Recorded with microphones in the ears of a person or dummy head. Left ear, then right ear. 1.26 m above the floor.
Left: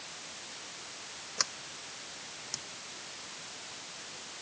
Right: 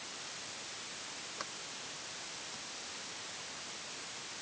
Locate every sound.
1.4 s a sliding door: 80° left